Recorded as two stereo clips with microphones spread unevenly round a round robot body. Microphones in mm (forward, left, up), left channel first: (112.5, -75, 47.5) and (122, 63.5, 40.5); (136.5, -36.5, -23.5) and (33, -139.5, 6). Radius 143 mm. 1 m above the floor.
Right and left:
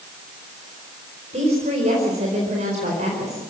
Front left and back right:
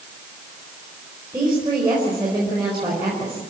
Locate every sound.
1.3 s a woman speaking: 145° left, 4.5 m